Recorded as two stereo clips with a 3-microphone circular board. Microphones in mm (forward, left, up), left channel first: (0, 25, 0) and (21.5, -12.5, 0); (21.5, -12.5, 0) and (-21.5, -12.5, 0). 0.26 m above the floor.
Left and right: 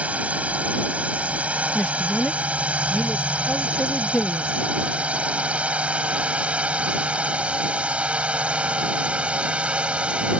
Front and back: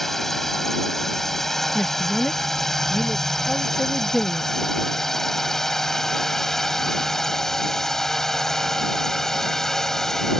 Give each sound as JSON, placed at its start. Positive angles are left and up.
{"t": 0.0, "sound": "a drone", "azimuth_deg": -75}
{"t": 1.8, "sound": "a man speaking", "azimuth_deg": 75}